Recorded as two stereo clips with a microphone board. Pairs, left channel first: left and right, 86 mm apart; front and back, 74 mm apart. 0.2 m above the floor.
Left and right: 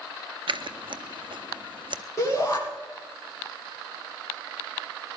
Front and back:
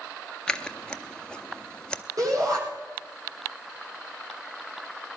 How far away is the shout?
About 9.5 m.